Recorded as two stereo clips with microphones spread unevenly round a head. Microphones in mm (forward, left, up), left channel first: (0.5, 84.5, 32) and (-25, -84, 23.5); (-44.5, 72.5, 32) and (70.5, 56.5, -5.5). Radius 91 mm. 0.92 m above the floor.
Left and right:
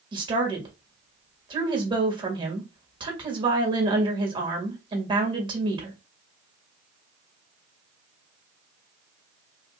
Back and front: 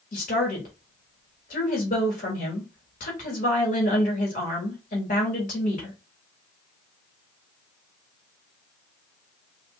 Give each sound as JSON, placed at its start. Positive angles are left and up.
{"t": 0.1, "sound": "a woman speaking", "azimuth_deg": -155, "distance_m": 1.7}